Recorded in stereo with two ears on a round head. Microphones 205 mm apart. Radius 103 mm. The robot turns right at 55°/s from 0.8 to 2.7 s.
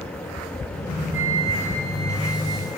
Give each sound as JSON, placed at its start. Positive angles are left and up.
{"t": 1.1, "sound": "a flute", "azimuth_deg": -175, "distance_m": 4.5}